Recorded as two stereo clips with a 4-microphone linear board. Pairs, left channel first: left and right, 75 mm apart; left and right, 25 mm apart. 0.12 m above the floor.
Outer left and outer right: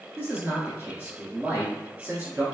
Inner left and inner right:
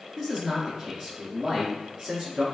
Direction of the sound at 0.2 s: 25° right (ahead or behind).